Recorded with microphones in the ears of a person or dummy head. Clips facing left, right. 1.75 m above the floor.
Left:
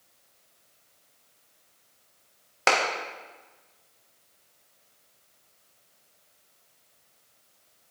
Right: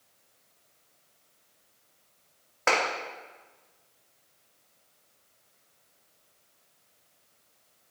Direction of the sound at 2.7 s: 50° left (ahead or behind).